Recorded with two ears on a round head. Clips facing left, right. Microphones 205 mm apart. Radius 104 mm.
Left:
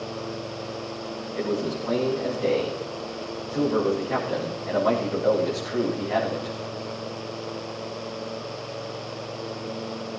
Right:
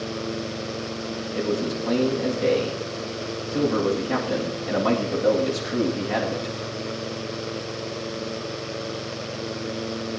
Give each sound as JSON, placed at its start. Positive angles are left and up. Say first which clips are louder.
{"t": 1.4, "sound": "a man speaking", "louder": "right 1 dB", "side_deg": -50, "distance_m": 10.0}